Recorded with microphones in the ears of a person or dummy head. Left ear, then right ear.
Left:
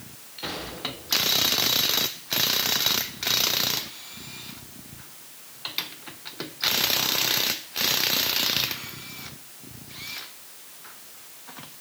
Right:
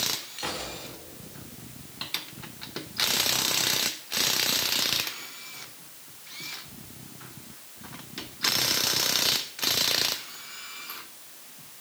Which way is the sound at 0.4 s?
20° right (ahead or behind).